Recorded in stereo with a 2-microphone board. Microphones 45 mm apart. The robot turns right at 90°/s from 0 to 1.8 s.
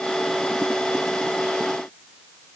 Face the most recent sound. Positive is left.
No sound to turn to.